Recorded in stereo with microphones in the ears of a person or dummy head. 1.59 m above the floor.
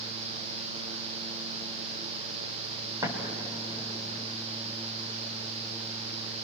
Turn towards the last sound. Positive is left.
turn(degrees=-20)  # may be behind; listen again after turning